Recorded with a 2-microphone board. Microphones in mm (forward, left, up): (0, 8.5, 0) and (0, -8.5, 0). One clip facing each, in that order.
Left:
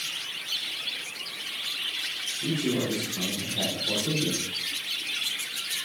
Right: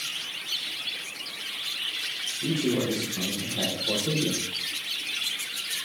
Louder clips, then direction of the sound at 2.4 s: Right 2 dB; 35° right (ahead or behind).